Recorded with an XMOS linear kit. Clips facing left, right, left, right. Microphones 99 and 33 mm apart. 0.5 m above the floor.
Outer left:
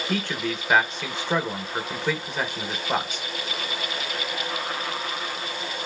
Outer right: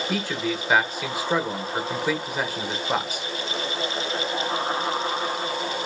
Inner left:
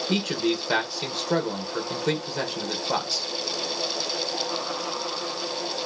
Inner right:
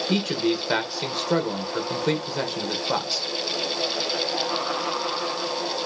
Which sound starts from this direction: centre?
A man speaking, at 0.1 s.